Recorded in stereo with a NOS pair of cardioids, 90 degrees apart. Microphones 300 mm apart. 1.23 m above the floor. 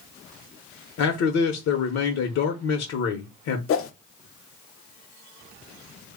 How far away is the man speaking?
About 0.7 m.